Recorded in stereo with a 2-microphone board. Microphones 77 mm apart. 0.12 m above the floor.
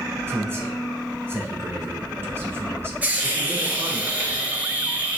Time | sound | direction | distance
0.3 | a man speaking | 30° right (ahead or behind) | 1.2 m
3.0 | a hiss | 20° right (ahead or behind) | 0.7 m